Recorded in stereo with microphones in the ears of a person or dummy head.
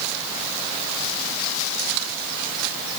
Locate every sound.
Only background noise.